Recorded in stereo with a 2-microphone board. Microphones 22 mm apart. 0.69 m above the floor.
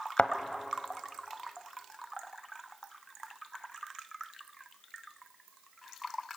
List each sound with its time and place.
0.2 s a thud: 70° left (ahead or behind), 1.0 m